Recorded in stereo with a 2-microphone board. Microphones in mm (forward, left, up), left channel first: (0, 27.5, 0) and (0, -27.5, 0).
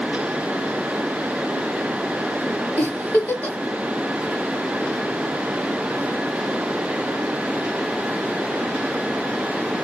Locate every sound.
2.8 s a giggle: 30° left (ahead or behind), 1.0 m